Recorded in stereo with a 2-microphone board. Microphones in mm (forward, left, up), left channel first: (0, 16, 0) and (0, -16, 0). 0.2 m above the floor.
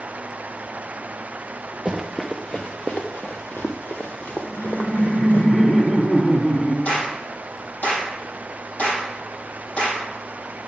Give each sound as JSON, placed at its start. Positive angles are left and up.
{"t": 1.9, "sound": "running footsteps", "side_deg": 5, "distance_m": 1.1}
{"t": 4.4, "sound": "laughter", "side_deg": 45, "distance_m": 1.7}
{"t": 6.8, "sound": "a clap", "side_deg": 55, "distance_m": 5.5}